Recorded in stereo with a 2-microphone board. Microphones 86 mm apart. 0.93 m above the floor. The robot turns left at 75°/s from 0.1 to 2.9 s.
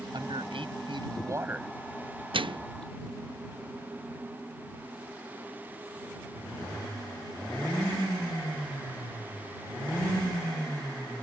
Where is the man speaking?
55° right; by 1.7 s 175° right.